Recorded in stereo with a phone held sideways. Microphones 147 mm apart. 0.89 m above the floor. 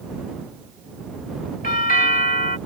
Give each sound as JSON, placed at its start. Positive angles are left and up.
{"t": 1.6, "sound": "a doorbell", "side_deg": 75}